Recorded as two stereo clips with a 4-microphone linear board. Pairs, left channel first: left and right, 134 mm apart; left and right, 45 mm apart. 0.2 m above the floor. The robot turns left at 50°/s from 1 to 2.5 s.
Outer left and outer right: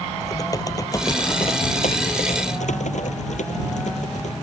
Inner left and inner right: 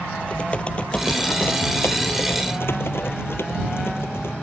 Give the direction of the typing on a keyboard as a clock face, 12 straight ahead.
7 o'clock.